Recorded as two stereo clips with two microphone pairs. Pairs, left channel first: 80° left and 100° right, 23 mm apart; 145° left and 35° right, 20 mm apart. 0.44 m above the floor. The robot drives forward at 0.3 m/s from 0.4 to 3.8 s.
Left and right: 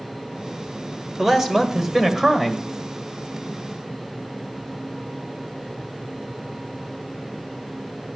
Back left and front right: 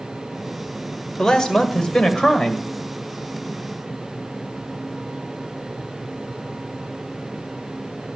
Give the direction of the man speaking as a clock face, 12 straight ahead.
6 o'clock.